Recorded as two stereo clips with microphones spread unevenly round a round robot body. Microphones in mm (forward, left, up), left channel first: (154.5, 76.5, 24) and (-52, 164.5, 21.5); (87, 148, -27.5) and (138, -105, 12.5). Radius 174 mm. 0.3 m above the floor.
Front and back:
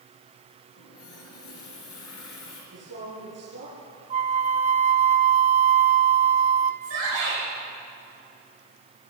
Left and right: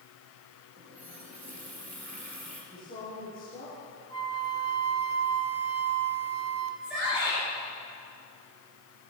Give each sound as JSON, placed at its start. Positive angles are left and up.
{"t": 0.8, "sound": "a running tap", "azimuth_deg": -20, "distance_m": 4.0}
{"t": 2.7, "sound": "a woman speaking", "azimuth_deg": 180, "distance_m": 6.5}
{"t": 4.1, "sound": "a flute", "azimuth_deg": 140, "distance_m": 0.7}
{"t": 6.8, "sound": "a shout", "azimuth_deg": -165, "distance_m": 3.5}